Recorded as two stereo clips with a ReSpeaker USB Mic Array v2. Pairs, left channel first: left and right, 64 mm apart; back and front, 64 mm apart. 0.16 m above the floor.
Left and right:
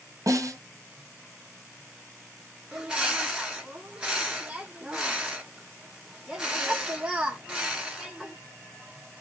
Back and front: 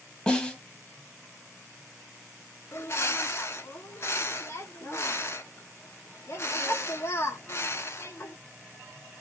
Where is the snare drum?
105° right, 1.0 m.